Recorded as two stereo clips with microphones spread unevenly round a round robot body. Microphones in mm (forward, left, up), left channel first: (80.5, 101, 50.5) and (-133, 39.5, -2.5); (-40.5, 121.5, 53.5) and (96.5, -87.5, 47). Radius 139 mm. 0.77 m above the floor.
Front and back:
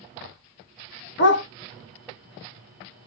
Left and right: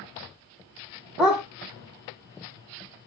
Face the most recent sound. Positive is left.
turn(degrees=30)